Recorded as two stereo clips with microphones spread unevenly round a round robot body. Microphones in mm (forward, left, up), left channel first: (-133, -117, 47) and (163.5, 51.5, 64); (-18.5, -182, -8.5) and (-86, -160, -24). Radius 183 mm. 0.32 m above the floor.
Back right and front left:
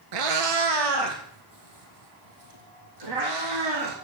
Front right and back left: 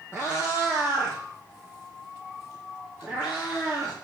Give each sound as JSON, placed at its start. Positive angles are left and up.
{"t": 0.1, "sound": "a cat meowing", "azimuth_deg": 50, "distance_m": 1.2}